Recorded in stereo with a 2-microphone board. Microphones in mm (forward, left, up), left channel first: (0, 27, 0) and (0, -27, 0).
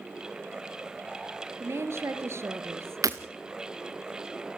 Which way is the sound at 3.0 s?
85° right.